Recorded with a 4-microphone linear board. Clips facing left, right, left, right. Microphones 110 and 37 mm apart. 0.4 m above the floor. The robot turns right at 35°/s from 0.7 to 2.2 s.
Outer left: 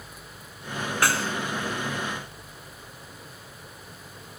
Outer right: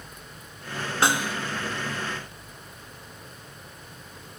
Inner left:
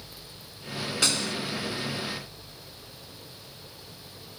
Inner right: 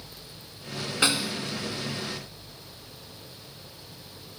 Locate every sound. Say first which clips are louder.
1.0 s a snare drum: outer right 2 dB, inner right 3 dB; 20° right (ahead or behind); by 1.4 s 10° right (ahead or behind)